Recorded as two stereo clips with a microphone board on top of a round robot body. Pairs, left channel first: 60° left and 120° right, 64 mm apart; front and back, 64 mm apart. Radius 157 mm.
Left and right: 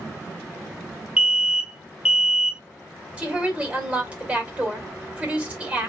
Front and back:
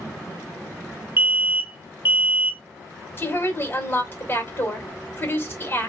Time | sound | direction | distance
1.2 | an alarm | 175° left | 1.3 m
3.2 | a woman speaking | 55° right | 2.5 m